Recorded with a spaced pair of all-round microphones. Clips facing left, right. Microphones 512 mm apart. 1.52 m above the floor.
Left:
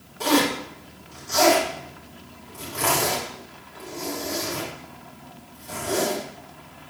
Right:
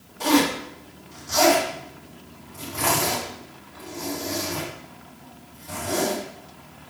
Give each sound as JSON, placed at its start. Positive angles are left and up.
{"t": 0.2, "sound": "a zipper", "side_deg": -40, "distance_m": 4.5}